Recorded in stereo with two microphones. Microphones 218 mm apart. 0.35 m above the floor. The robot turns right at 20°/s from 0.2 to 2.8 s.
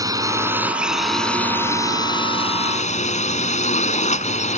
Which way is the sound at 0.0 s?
15° right.